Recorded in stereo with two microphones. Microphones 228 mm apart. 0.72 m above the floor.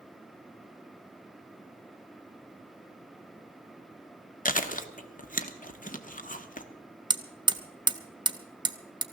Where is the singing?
I don't hear singing.